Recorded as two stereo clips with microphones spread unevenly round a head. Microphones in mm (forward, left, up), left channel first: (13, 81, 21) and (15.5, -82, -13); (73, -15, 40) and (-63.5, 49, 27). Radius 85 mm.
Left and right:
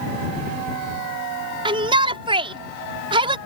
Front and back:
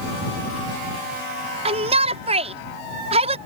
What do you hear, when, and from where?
1.6 s a shout: 150° right